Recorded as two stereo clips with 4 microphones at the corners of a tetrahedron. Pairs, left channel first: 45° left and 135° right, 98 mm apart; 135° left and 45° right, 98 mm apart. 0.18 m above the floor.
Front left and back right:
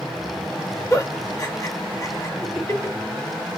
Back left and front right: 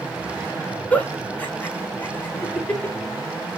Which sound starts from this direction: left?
A giggle, at 0.9 s.